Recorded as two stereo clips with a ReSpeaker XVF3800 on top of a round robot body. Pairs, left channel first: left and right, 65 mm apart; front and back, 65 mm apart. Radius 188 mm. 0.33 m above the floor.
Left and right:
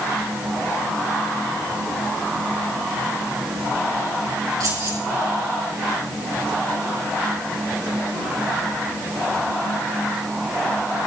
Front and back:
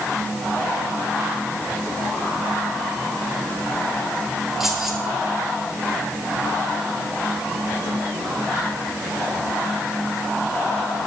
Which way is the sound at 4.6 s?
95° right.